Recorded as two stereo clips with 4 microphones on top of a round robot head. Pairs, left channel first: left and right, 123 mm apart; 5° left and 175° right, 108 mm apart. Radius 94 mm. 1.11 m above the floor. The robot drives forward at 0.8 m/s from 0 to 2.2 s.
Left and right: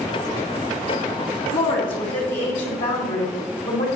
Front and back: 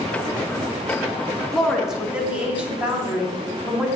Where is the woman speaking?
95° left, 2.5 m; by 3.9 s 105° left, 2.5 m.